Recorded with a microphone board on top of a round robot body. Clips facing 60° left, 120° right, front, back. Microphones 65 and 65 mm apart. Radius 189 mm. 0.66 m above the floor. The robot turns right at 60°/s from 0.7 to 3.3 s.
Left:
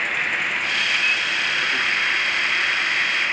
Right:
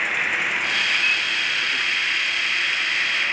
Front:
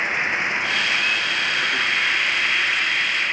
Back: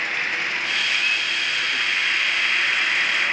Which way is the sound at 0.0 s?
35° right.